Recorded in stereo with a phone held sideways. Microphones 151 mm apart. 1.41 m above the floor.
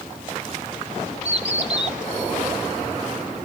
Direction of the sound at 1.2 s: 45° right (ahead or behind).